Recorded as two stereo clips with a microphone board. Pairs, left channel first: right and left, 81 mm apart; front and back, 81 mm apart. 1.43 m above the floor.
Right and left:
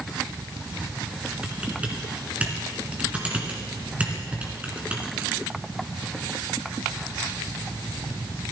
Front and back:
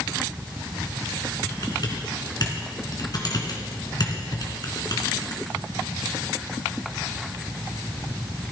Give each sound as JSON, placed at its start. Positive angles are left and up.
{"t": 1.4, "sound": "typing on a keyboard", "azimuth_deg": 20, "distance_m": 2.5}